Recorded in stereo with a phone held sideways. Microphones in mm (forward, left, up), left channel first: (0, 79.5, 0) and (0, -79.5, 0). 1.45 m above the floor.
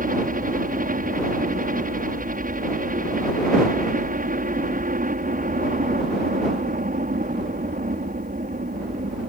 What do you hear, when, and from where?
0.0 s a helicopter: 60° right (ahead or behind)